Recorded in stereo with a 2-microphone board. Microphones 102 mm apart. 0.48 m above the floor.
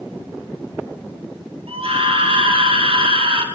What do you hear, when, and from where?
1.7 s a scream: 65° right (ahead or behind), 7 m; by 3.5 s 55° right (ahead or behind), 6.5 m